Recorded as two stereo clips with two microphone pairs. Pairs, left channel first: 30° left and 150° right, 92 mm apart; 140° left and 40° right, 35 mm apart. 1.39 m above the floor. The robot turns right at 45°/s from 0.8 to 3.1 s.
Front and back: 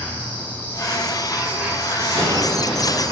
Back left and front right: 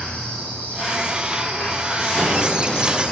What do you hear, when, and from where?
0.0 s an insect: 100° left, 3.5 m; by 3.1 s 160° right, 3.5 m
2.0 s an explosion: 170° right, 4 m; by 3.0 s 125° right, 4 m